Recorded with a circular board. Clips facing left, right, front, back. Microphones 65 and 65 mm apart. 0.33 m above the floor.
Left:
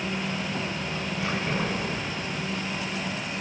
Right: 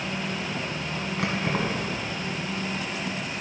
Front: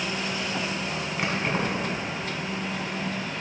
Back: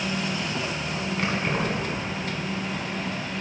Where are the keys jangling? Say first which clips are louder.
Right 2 dB, even; 80° right, 1.9 m.